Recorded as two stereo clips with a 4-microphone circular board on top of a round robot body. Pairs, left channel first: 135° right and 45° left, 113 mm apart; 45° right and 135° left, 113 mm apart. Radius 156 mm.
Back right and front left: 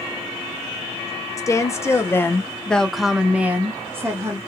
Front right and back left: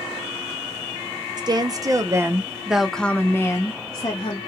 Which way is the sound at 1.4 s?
170° left.